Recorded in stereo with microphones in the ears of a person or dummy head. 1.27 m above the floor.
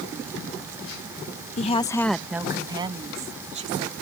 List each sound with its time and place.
1.6 s a woman speaking: 30° left (ahead or behind); by 3.9 s 50° right (ahead or behind)